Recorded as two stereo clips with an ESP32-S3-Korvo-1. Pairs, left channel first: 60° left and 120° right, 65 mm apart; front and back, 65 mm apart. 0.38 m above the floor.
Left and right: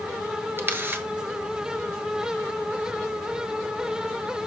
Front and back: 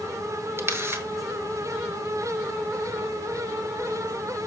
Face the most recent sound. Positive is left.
turn(degrees=-160)